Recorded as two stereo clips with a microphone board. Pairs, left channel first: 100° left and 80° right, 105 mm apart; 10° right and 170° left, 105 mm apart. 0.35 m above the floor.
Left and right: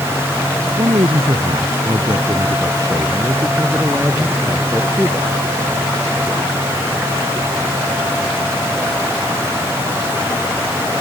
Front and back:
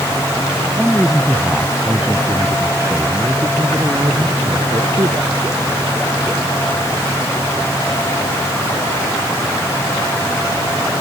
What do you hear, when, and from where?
0.8 s a man speaking: 100° right; by 5.3 s 150° right